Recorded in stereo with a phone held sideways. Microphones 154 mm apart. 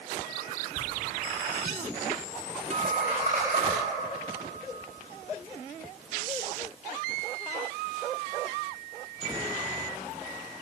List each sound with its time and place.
0.8 s laughter: 55° right (ahead or behind), 2.5 m; by 3.7 s 50° right (ahead or behind), 6.5 m
2.7 s a guitar: 45° right (ahead or behind), 2 m